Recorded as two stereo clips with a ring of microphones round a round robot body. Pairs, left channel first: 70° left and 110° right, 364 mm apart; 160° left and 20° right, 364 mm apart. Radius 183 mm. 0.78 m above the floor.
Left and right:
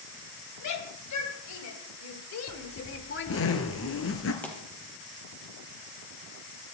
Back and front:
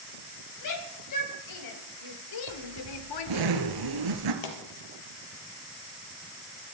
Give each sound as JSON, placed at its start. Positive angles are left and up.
{"t": 0.6, "sound": "a shout", "azimuth_deg": 115, "distance_m": 4.0}
{"t": 2.5, "sound": "a zipper", "azimuth_deg": 10, "distance_m": 2.0}
{"t": 4.4, "sound": "a pop", "azimuth_deg": 155, "distance_m": 4.0}